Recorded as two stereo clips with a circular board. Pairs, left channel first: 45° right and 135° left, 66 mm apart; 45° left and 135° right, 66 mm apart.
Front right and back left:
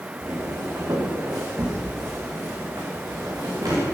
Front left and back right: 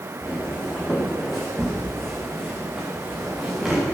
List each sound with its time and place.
0.2 s footsteps: 120° left, 4.5 m; by 3.8 s 150° left, 6 m